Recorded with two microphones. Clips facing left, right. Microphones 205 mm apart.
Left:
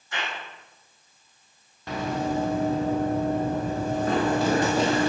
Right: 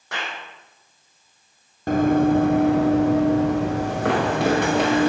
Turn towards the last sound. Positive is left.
turn(degrees=-65)  # may be behind; listen again after turning